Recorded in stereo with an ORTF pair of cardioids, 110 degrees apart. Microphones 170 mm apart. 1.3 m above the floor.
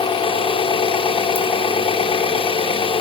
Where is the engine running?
30° left, 3.5 m.